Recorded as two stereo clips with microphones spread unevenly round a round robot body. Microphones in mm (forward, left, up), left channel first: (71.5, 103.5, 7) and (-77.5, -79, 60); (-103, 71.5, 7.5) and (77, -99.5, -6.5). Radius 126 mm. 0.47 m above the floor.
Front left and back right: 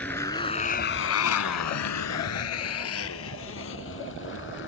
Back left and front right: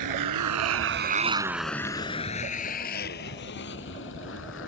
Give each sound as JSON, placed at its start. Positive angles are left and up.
{"t": 0.0, "sound": "a motorcycle", "azimuth_deg": -35}